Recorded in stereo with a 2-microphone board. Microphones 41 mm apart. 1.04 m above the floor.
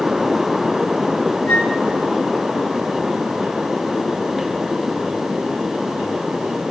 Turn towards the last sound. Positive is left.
turn(degrees=35)  # may be behind; listen again after turning